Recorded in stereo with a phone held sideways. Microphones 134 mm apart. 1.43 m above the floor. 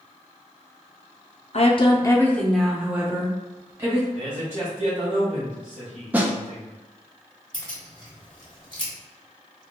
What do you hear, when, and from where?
1.5 s a woman speaking: 55° left (ahead or behind), 0.6 m; by 4.0 s 25° right (ahead or behind), 1.6 m
4.2 s a man speaking: 80° right, 1.7 m
6.1 s a snare drum: 10° right (ahead or behind), 0.6 m
7.5 s keys jangling: 35° left (ahead or behind), 1.5 m